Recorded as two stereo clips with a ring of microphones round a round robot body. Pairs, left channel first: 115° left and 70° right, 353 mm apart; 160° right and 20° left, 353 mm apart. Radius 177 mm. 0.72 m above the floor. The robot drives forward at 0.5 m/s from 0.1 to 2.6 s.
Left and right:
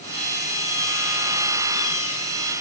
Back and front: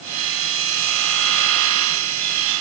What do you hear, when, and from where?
Only background noise.